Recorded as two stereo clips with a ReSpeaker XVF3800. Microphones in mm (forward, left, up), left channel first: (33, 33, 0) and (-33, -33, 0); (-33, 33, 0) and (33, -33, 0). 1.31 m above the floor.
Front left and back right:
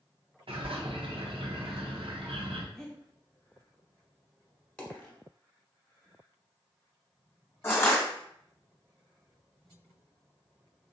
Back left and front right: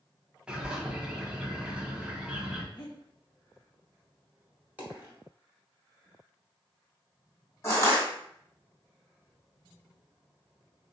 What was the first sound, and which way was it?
A bird, 125° right.